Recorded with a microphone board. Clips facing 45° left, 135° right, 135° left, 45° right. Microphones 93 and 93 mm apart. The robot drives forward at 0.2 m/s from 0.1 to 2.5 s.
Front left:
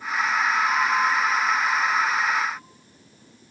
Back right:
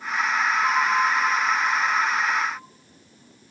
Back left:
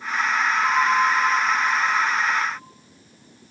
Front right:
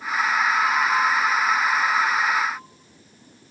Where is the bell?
175° right, 6 m.